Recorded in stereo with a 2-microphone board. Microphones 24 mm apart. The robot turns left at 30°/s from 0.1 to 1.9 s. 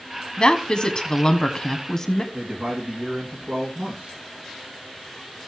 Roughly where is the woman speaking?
Left.